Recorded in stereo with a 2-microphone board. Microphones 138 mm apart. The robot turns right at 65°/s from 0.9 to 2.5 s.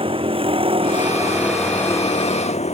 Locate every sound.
0.0 s a vehicle: 45° right; by 2.7 s 60° left